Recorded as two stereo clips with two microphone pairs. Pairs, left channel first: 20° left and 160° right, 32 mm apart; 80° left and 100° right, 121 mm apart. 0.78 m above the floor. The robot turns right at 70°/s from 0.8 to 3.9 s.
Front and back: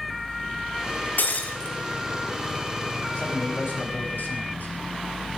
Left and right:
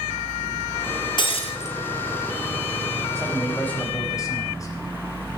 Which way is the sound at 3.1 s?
30° right.